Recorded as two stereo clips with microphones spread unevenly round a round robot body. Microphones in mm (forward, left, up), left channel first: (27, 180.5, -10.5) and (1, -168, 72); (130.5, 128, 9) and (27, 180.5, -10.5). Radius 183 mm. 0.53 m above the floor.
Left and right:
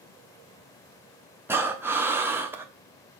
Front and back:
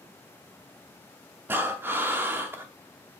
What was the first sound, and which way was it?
Breathing, 160° left.